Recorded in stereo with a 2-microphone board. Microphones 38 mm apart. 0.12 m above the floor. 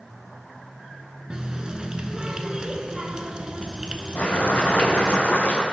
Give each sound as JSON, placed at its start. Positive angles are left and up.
{"t": 1.3, "sound": "a running tap", "side_deg": -25, "distance_m": 0.8}
{"t": 4.2, "sound": "boiling", "side_deg": 40, "distance_m": 3.5}